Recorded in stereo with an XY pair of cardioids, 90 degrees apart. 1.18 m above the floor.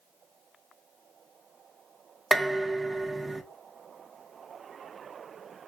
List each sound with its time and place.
2.3 s dishes clattering: 25° right, 0.7 m